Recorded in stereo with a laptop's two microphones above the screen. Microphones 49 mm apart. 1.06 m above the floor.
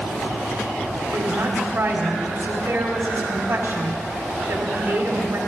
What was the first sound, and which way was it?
A woman speaking, 55° right (ahead or behind).